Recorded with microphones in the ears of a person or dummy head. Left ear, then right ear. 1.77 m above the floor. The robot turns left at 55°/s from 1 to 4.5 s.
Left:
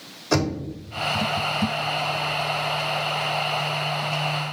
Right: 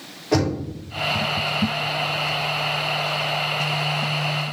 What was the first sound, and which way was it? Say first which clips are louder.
Knocking: right 2 dB; 70° left (ahead or behind).